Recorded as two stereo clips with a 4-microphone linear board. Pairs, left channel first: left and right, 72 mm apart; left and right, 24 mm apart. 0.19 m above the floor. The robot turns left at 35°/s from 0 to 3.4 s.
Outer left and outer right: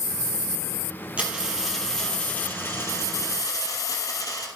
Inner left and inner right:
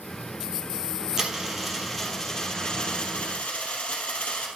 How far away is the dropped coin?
About 2.5 m.